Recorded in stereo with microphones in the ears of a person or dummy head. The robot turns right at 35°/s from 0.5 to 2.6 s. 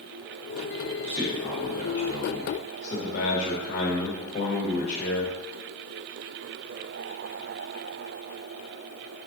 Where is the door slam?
I don't hear a door slam.